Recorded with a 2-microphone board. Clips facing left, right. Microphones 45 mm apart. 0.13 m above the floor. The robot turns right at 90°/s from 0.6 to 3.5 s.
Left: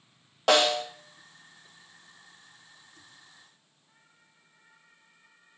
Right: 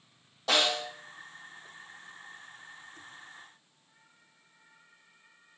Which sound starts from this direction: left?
A snare drum, at 0.5 s.